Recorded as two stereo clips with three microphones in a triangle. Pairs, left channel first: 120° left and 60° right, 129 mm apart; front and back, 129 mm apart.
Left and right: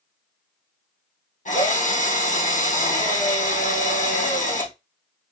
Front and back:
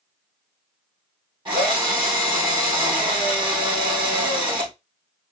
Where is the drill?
130° left, 3.5 m.